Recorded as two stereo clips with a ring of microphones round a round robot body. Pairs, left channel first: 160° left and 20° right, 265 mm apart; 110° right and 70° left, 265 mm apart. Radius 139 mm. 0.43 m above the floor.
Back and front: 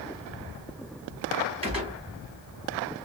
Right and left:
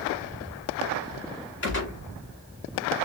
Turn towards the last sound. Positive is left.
turn(degrees=-85)